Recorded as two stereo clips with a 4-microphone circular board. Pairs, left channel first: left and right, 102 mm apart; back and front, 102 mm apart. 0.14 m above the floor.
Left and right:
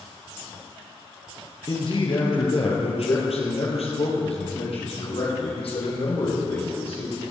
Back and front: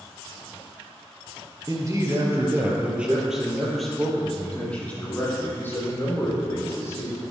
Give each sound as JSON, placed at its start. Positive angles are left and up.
{"t": 1.7, "sound": "a man speaking", "azimuth_deg": 50, "distance_m": 2.5}